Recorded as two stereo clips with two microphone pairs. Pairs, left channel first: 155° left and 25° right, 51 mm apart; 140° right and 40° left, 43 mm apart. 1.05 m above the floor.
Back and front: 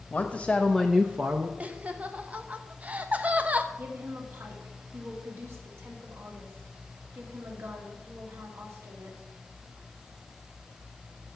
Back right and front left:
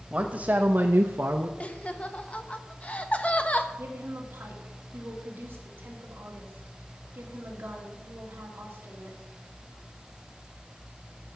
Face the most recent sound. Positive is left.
turn(degrees=5)